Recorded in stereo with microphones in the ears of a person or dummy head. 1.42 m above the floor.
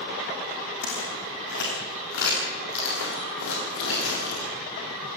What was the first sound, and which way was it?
Footsteps, 60° left (ahead or behind).